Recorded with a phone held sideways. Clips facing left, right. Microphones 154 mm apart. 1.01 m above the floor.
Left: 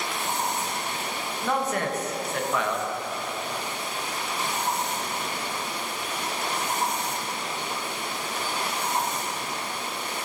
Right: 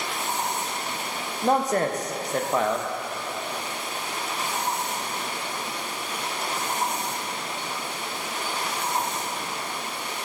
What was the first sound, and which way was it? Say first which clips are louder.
A man speaking: right 5 dB; 35° right (ahead or behind).